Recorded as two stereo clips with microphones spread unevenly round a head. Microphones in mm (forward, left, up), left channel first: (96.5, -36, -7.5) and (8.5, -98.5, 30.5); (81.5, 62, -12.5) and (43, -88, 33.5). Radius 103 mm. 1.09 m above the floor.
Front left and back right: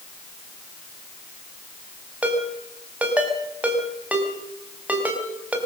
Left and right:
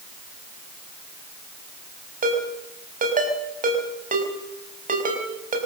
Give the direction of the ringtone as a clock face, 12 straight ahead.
2 o'clock.